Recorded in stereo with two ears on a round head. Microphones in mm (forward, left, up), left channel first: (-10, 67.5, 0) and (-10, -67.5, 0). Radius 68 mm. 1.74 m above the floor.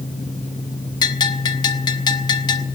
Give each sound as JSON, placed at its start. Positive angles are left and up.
{"t": 1.0, "sound": "a bell", "side_deg": 30, "distance_m": 1.4}